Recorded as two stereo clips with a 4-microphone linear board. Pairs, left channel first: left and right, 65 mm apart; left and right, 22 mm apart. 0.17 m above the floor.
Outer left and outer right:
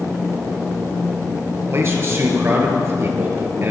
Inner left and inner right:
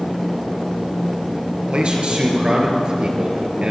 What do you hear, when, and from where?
1.7 s a man speaking: 45° right (ahead or behind), 3 m